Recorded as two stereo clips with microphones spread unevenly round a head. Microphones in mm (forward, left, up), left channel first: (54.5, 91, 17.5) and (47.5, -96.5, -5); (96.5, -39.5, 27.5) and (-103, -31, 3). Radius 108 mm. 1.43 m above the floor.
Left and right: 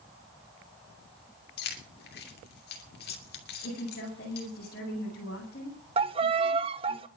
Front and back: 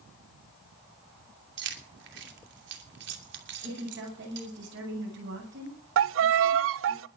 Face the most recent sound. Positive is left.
turn(degrees=-160)